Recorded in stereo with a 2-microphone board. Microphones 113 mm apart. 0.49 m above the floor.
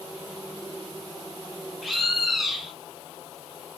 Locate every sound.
1.8 s a bird: centre (ahead or behind), 1.1 m